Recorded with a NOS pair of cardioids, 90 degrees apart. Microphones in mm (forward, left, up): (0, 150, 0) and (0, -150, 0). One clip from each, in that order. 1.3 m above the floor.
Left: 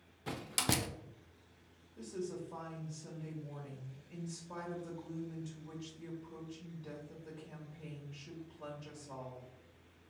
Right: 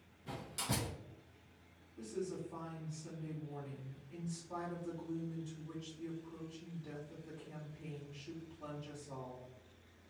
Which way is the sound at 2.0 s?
50° left.